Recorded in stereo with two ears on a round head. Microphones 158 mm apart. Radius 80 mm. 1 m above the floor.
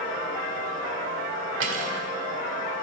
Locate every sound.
1.6 s cutlery clinking: 80° right, 1.9 m